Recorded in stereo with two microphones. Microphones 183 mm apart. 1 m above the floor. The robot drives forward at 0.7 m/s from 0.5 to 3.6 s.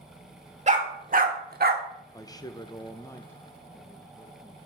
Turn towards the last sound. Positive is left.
turn(degrees=10)  # may be behind; listen again after turning